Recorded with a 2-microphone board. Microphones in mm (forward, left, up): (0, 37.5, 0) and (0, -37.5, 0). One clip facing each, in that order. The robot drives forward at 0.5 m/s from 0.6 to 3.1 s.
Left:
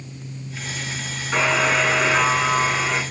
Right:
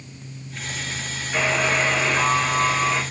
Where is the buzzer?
80° left, 5.5 m; by 3.0 s 75° left (ahead or behind), 6 m.